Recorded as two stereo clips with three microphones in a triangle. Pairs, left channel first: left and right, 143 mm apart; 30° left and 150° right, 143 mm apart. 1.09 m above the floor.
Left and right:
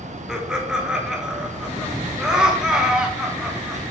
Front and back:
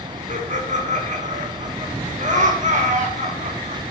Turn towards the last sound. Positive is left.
turn(degrees=-175)